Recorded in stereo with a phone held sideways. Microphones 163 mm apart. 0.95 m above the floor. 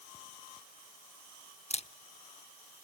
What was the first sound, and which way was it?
A camera shutter, 40° left (ahead or behind).